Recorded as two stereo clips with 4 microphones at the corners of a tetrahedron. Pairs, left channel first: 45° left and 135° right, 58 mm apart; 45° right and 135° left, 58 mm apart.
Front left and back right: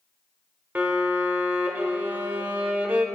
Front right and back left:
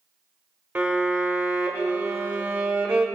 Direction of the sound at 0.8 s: 175° right.